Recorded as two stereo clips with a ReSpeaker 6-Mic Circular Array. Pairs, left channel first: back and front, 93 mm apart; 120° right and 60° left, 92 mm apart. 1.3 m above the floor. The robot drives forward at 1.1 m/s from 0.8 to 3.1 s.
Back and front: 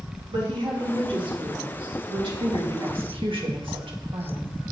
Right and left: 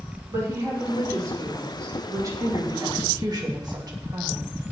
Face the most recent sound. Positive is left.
turn(degrees=20)